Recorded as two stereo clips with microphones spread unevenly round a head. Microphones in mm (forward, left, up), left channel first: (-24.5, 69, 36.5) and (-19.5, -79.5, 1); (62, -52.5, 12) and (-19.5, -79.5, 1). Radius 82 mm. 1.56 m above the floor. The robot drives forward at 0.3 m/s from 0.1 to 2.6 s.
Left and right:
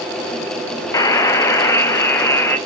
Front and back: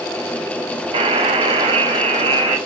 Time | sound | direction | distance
0.9 | a buzzer | 165° left | 1.0 m